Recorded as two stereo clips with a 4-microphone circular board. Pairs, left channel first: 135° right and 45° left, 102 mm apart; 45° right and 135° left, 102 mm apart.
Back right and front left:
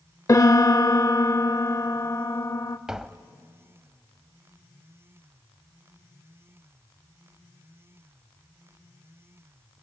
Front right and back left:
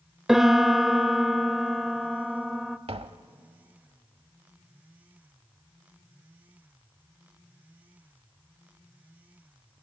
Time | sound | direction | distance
0.3 | a piano | 145° right | 0.6 m
2.9 | tapping | 130° left | 0.6 m